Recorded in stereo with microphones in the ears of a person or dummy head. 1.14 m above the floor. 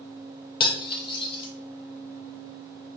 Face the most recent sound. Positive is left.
turn(degrees=30)  # may be behind; listen again after turning